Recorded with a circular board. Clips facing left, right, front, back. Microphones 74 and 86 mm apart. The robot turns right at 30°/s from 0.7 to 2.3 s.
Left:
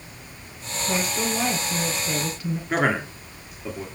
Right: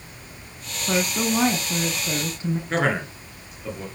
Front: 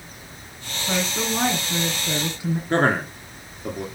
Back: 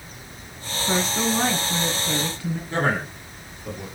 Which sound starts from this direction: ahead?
A man speaking, at 2.7 s.